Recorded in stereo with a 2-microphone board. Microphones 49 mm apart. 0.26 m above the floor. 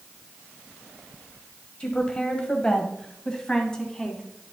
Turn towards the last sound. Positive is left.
turn(degrees=15)  # may be behind; listen again after turning